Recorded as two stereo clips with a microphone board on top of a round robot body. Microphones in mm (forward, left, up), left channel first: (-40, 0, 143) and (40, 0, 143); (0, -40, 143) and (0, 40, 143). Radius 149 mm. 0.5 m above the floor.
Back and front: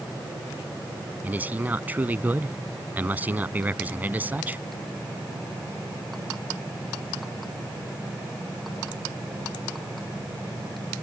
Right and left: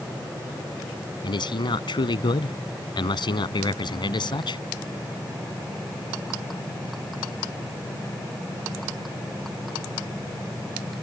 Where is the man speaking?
70° right.